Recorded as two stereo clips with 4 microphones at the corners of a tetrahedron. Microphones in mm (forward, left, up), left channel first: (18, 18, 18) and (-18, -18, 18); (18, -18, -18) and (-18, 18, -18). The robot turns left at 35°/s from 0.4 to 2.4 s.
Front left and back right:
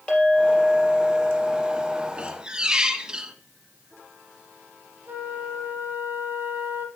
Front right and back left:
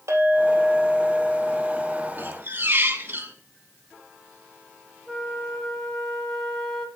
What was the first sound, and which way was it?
A clink, 115° left.